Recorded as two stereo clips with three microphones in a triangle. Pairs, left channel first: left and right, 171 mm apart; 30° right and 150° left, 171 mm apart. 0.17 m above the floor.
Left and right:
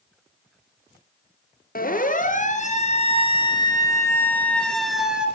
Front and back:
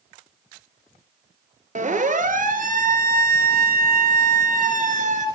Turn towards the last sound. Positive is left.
turn(degrees=-175)